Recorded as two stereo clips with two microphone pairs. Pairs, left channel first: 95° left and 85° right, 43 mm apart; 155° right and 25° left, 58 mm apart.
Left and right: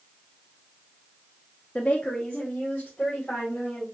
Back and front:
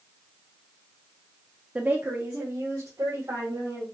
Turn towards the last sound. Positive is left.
turn(degrees=40)